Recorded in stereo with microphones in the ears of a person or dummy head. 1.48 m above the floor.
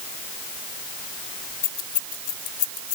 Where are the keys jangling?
45° left (ahead or behind).